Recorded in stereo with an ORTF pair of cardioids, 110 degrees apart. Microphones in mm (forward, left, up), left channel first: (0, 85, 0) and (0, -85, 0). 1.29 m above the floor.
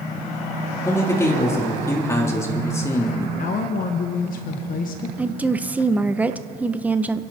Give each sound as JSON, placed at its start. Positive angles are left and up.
{"t": 0.8, "sound": "a man speaking", "azimuth_deg": 15, "distance_m": 3.5}
{"t": 3.4, "sound": "a woman speaking", "azimuth_deg": 60, "distance_m": 1.4}
{"t": 5.2, "sound": "a woman speaking", "azimuth_deg": -10, "distance_m": 0.9}